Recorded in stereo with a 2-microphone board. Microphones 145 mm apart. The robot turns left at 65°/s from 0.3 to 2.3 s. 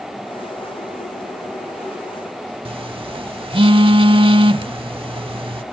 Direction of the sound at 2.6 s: 40° right (ahead or behind).